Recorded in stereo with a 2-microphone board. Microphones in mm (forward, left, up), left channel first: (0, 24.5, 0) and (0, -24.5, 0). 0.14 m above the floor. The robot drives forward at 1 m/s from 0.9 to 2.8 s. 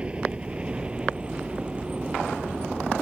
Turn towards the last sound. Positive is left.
turn(degrees=-20)  # may be behind; listen again after turning